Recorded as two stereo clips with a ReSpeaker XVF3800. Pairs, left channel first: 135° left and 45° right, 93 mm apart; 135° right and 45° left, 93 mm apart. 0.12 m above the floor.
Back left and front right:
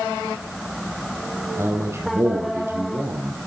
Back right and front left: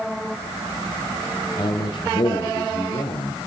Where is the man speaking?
105° right, 4 m.